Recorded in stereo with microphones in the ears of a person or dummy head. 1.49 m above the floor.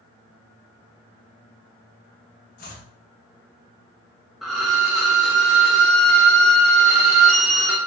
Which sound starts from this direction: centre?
A violin, at 4.4 s.